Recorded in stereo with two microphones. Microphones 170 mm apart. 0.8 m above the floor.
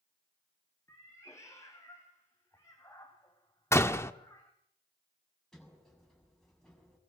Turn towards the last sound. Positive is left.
turn(degrees=5)  # may be behind; listen again after turning